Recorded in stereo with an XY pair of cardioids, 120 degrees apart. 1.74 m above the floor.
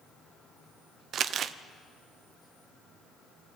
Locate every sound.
1.1 s crumpling: 55° right, 0.7 m